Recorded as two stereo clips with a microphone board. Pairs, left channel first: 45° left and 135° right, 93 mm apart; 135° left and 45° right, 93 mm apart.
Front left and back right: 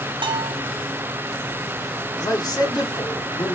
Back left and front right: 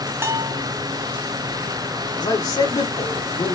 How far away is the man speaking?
About 2 m.